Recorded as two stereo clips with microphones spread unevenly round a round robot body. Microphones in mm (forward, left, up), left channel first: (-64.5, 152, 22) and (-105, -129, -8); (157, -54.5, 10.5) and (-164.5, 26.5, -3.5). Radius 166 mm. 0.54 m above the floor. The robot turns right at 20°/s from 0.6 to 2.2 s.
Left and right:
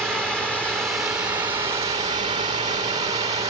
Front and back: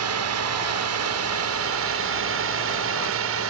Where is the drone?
175° left; by 3.5 s 165° right.